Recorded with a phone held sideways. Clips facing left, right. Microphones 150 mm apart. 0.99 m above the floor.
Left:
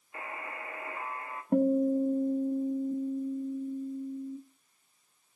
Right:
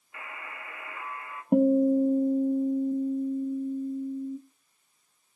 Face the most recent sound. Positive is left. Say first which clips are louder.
# right 4 dB
turn(degrees=-15)  # may be behind; listen again after turning